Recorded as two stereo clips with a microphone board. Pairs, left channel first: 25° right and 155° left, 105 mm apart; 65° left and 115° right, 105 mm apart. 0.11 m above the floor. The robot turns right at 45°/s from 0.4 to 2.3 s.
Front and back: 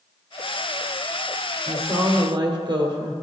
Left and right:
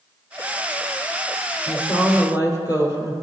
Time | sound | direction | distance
1.7 | a woman speaking | 85° left | 2.5 m